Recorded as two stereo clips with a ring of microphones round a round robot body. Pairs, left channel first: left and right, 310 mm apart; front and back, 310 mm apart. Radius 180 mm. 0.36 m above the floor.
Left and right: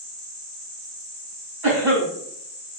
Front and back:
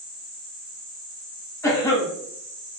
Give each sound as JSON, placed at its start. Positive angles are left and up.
{"t": 1.6, "sound": "a cough", "azimuth_deg": -80, "distance_m": 4.0}